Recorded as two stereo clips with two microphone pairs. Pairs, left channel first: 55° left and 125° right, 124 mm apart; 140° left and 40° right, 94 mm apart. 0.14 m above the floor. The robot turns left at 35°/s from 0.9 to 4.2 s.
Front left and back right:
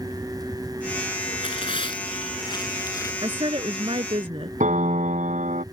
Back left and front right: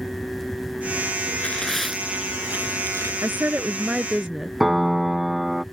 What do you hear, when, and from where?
1.4 s tearing paper: 65° left; by 3.1 s straight ahead
3.2 s a woman speaking: 95° right; by 4.5 s 130° right
4.6 s a piano: 130° right